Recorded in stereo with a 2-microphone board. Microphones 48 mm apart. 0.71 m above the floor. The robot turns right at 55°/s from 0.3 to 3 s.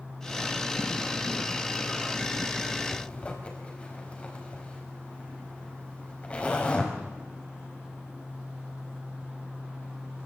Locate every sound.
2.9 s a zipper: 35° left (ahead or behind), 4.5 m; by 6.9 s 30° left (ahead or behind), 4.5 m